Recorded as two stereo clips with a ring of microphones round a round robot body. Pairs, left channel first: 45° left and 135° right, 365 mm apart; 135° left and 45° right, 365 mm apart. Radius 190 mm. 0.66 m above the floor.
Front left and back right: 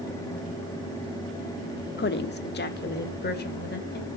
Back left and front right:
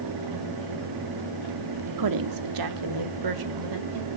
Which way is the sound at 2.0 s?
15° right.